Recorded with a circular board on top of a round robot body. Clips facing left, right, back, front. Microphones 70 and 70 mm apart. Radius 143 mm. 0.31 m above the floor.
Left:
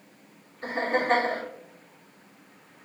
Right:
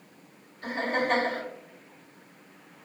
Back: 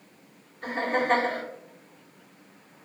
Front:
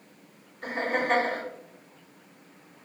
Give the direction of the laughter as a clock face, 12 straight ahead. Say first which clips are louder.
Left 2 dB, back 2 dB; 9 o'clock.